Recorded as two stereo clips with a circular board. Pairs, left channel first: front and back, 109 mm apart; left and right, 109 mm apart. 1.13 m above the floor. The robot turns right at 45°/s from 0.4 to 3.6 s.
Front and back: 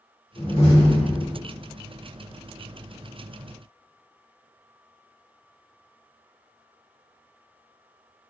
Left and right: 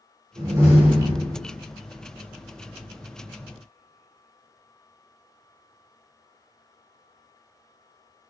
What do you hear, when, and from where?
0.4 s a door slam: 40° right, 0.9 m; by 1.4 s 5° left, 0.9 m